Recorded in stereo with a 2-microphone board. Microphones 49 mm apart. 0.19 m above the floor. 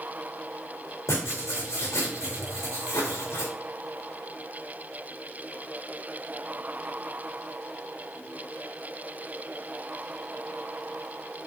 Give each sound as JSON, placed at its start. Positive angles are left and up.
{"t": 1.1, "sound": "writing", "side_deg": 90, "distance_m": 3.0}